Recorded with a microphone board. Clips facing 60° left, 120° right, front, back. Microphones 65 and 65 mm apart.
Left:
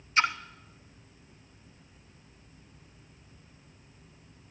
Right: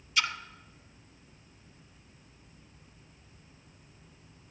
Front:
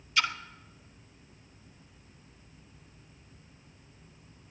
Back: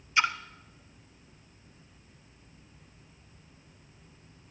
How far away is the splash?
About 0.8 m.